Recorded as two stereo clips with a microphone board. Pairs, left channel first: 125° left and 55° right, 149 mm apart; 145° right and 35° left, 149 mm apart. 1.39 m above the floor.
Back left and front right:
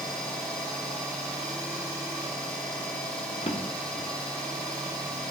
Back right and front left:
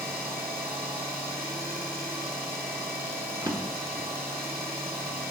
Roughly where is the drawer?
Left.